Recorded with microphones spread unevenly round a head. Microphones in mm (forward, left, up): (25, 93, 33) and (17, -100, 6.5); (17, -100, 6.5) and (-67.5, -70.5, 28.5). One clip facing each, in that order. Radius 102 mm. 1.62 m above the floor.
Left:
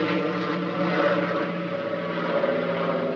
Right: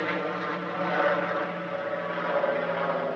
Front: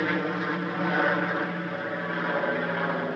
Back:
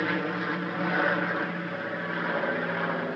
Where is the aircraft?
60° left.